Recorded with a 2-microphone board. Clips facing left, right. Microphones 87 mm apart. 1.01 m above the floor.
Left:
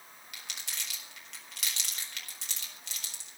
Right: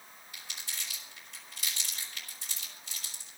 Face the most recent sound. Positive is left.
turn(degrees=80)